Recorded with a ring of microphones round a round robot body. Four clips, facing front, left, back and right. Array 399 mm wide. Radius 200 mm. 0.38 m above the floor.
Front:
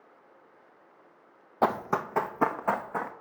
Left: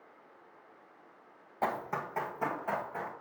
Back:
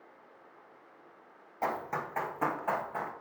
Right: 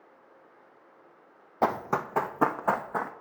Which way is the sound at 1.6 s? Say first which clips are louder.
Right 7 dB, front 7 dB; 40° right.